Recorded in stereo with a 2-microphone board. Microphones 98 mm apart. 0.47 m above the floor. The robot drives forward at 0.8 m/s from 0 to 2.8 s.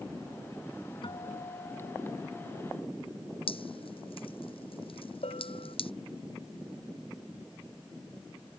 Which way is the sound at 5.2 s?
85° left.